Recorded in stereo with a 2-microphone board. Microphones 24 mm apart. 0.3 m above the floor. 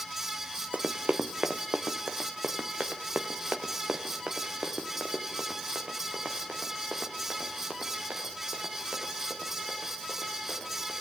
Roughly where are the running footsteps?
Right.